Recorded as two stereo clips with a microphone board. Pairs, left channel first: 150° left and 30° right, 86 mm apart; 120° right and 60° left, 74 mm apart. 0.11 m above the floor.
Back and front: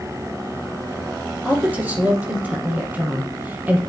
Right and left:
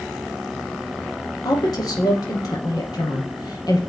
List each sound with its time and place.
1.4 s a woman speaking: 100° right, 4 m